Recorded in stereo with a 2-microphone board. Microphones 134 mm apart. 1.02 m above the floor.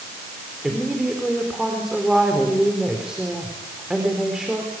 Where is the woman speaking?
5° right (ahead or behind), 4 m.